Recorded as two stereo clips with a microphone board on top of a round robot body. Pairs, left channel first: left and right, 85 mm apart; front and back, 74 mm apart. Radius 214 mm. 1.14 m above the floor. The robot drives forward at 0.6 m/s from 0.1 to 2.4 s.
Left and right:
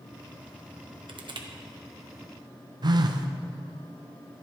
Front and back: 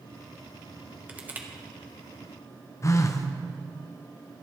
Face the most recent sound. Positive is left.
turn(degrees=-50)